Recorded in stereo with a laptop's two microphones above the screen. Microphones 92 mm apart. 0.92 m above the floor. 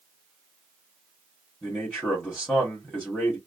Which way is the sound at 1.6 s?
5° left (ahead or behind).